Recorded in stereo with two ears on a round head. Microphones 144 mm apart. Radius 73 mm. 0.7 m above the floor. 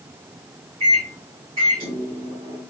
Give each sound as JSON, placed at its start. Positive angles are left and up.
{"t": 0.8, "sound": "a microwave", "side_deg": -35, "distance_m": 1.1}